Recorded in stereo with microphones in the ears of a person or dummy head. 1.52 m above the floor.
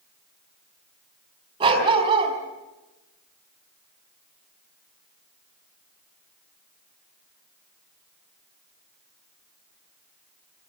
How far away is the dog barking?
About 4.5 m.